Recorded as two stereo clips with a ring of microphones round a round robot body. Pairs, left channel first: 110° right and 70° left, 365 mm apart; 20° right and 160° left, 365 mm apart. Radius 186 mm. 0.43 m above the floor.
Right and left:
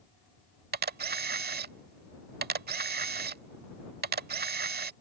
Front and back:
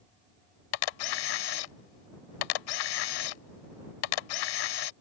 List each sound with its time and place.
0.7 s a camera shutter: straight ahead